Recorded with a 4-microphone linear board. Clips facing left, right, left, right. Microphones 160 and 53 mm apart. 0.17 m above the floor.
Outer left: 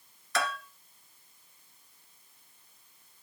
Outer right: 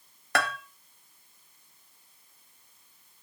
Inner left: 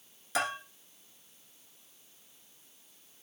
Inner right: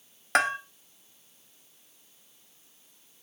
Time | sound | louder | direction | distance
0.3 | a bell | outer right 2 dB, inner right 7 dB | 65° right (ahead or behind) | 1.2 m